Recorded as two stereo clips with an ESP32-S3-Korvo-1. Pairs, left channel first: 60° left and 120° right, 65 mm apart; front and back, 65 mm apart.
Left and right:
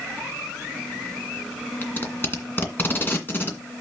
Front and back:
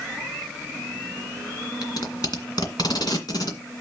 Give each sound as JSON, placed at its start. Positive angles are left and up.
{"t": 1.8, "sound": "tape being pulled", "azimuth_deg": 0, "distance_m": 1.9}